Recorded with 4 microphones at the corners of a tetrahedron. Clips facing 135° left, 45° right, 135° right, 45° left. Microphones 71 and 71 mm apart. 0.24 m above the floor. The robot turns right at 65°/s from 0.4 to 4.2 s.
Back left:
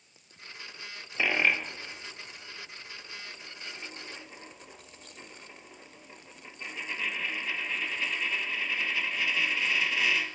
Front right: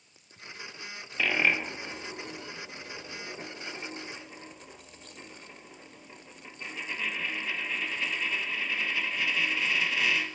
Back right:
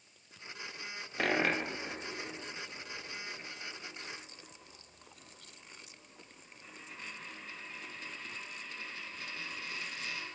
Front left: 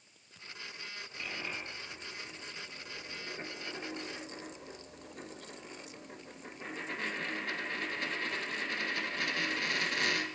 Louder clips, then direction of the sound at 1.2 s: Even, back right 12 dB; 150° right.